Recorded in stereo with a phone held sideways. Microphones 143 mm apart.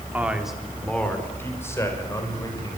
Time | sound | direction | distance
0.1 | a man speaking | 10° right (ahead or behind) | 3 m